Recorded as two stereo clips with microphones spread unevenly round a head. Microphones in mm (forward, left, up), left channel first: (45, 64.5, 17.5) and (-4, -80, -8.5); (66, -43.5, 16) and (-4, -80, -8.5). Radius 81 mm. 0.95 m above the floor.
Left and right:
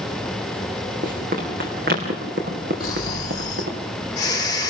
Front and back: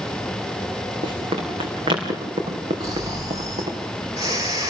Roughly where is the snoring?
Behind left.